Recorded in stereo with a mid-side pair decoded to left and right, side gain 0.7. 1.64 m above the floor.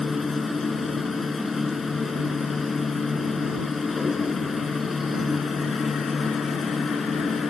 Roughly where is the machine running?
Ahead.